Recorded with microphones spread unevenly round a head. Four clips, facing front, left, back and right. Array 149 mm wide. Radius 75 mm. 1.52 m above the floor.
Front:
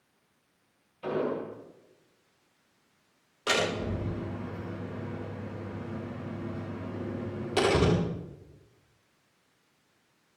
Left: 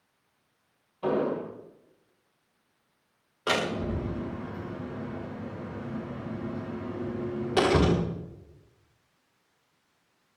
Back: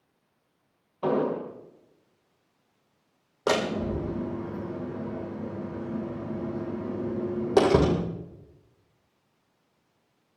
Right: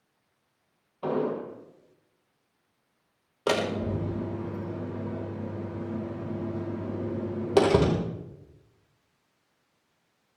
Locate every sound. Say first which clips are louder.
1.0 s an explosion: left 1 dB, back 5 dB; 170° right, 4.5 m
3.5 s a door slam: right 2 dB, back 3 dB; 140° right, 4 m